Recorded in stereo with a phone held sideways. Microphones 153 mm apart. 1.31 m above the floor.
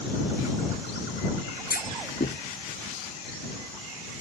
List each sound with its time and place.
1.7 s a clunk: 80° left